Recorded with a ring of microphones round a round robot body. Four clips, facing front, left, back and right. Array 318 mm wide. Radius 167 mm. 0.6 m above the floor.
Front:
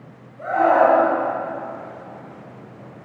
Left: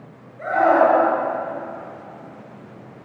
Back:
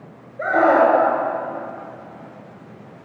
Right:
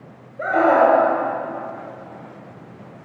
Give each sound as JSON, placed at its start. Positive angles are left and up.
{"t": 0.4, "sound": "a scream", "azimuth_deg": -145, "distance_m": 8.0}